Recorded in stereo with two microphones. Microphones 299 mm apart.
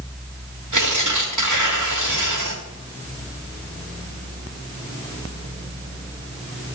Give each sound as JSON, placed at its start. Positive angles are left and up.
{"t": 0.7, "sound": "tearing paper", "side_deg": -85, "distance_m": 3.0}